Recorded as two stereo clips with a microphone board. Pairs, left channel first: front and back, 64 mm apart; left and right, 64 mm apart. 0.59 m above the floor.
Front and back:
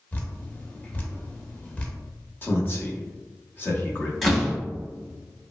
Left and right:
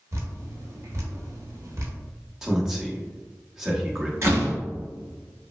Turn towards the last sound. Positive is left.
turn(degrees=-85)